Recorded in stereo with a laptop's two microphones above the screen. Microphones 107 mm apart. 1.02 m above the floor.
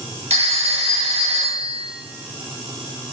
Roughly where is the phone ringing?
Right.